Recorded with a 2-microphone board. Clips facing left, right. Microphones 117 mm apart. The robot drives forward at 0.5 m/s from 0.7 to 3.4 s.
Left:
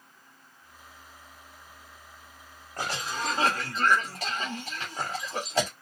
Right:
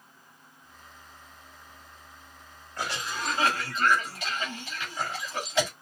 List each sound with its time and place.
2.8 s a cough: 50° left (ahead or behind), 2 m; by 5.7 s 45° left (ahead or behind), 2.5 m